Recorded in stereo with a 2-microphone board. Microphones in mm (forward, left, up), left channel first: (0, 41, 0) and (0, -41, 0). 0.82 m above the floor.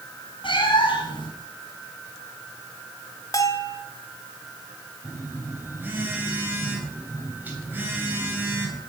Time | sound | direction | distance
0.4 | a cat meowing | 85° left | 3 m
3.3 | a bell | 45° left (ahead or behind) | 1.2 m
5.0 | a phone buzzing | 20° right (ahead or behind) | 2.5 m